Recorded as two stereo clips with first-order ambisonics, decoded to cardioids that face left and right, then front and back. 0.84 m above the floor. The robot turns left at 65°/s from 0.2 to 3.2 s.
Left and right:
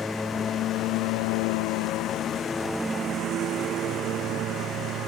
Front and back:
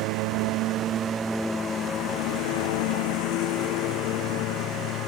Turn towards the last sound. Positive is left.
turn(degrees=-40)